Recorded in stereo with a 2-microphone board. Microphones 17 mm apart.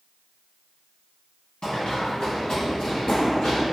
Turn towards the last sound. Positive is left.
turn(degrees=70)  # may be behind; listen again after turning